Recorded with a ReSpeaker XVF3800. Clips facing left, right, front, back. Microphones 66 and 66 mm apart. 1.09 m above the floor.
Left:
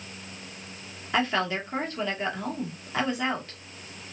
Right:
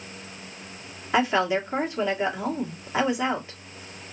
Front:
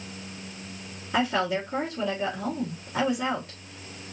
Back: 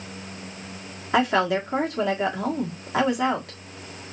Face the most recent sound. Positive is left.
turn(degrees=-165)